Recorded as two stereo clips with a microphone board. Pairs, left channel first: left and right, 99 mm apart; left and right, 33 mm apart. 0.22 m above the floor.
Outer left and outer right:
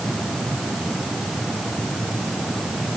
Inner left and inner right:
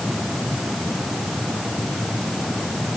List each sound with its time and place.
Only background noise.